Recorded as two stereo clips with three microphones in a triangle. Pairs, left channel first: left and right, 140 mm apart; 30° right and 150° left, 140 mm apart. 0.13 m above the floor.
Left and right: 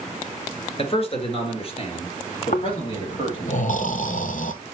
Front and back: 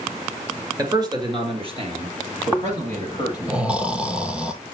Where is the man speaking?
100° left, 2 m; by 3.5 s 135° left, 4 m.